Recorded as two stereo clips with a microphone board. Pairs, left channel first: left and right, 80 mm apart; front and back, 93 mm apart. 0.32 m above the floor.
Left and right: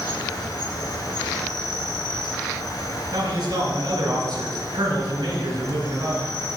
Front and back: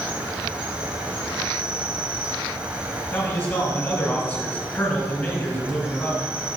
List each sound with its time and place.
0.0 s an insect: 105° left, 1.1 m
3.1 s a man speaking: 60° right, 2.5 m